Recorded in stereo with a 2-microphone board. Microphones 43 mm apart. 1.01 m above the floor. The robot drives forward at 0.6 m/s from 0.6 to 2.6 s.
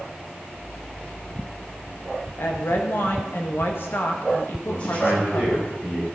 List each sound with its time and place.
2.4 s a woman speaking: 55° left (ahead or behind), 1.4 m; by 5.6 s 60° left (ahead or behind), 1.4 m
4.6 s a man speaking: 50° left (ahead or behind), 4.5 m